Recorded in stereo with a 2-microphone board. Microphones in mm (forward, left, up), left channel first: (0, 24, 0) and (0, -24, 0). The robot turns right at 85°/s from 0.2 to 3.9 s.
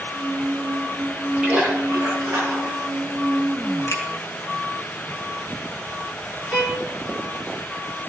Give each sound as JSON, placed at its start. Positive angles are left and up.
{"t": 1.4, "sound": "a splash", "azimuth_deg": -160, "distance_m": 7.5}
{"t": 3.9, "sound": "a finger snap", "side_deg": 80, "distance_m": 7.5}
{"t": 6.5, "sound": "a violin", "side_deg": 30, "distance_m": 3.0}